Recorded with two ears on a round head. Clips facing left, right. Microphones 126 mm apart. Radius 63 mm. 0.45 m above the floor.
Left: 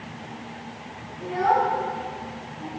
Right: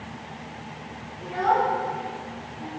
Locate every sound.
1.2 s a child speaking: 5° left (ahead or behind), 3 m; by 2.7 s 5° right (ahead or behind), 3.5 m